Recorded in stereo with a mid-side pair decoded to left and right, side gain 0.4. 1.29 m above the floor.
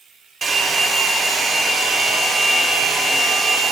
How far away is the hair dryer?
About 0.8 m.